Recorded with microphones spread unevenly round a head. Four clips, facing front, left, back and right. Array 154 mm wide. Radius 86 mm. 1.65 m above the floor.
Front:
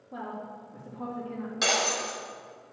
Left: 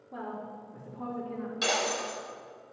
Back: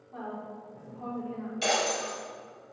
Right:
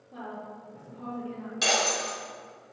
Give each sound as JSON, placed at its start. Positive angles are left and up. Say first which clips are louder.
{"t": 0.1, "sound": "a woman speaking", "louder": "left 1 dB, front 1 dB", "azimuth_deg": 0, "distance_m": 3.0}
{"t": 1.6, "sound": "breaking glass", "louder": "right 3 dB, even", "azimuth_deg": -25, "distance_m": 3.0}